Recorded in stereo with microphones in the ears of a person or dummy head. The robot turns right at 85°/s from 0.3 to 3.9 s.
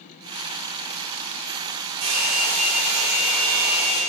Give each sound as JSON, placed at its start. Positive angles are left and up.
{"t": 2.0, "sound": "a hair dryer", "azimuth_deg": -110, "distance_m": 3.0}